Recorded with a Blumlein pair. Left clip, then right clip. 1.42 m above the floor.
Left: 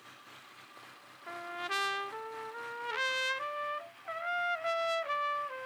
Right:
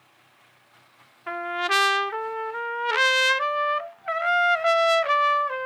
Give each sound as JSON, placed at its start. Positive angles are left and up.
{"t": 1.3, "sound": "a trumpet", "azimuth_deg": -60}